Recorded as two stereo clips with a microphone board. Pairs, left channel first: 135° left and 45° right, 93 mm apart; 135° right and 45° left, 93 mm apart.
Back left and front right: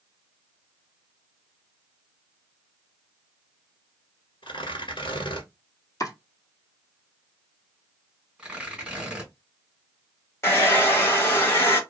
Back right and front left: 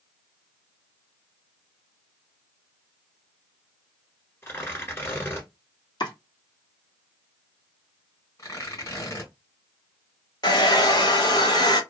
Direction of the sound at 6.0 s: 170° right.